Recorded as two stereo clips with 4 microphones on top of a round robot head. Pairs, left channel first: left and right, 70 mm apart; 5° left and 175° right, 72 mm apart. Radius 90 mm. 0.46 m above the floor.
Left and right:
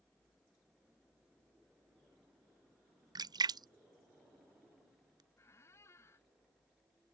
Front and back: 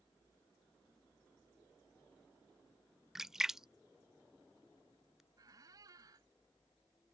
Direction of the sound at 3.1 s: 90° right.